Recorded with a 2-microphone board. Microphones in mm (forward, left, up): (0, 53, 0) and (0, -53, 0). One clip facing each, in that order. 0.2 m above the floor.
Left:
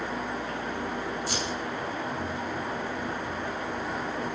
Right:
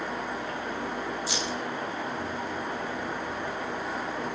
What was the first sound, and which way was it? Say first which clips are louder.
Keys jangling: even; 45° left (ahead or behind).